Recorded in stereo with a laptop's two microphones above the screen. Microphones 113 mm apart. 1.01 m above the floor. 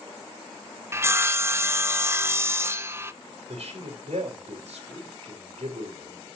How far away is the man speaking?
About 3.5 m.